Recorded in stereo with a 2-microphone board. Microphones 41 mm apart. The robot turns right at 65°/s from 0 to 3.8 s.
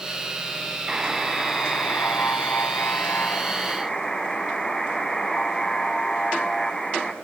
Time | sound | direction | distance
0.9 | a buzzer | 20° right | 1.5 m